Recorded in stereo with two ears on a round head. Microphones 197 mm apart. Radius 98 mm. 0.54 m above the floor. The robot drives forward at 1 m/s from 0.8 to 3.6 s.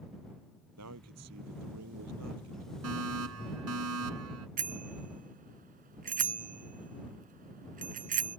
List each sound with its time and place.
0.8 s a man speaking: 85° right
2.8 s a fire alarm: 75° right (ahead or behind); by 4.5 s 80° right
4.6 s a bicycle bell: 40° right (ahead or behind)